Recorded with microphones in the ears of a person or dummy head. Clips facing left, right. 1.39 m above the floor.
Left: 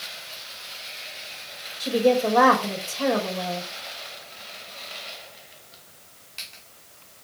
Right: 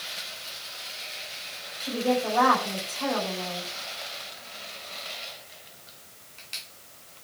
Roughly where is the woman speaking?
Left.